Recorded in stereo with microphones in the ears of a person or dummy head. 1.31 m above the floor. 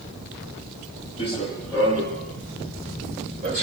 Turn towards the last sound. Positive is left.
turn(degrees=-20)  # may be behind; listen again after turning